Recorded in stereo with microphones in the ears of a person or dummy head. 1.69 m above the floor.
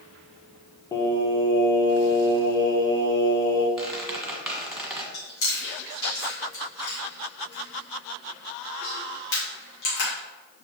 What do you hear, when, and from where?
0.9 s singing: 20° left (ahead or behind), 1.0 m
3.8 s a squeak: 5° right (ahead or behind), 1.3 m
5.1 s chewing: 75° left (ahead or behind), 3 m